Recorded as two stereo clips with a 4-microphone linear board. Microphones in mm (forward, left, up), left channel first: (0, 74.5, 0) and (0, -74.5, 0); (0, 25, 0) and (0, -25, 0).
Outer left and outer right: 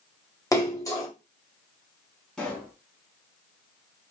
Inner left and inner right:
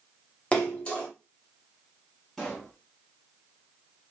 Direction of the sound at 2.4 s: 5° left (ahead or behind).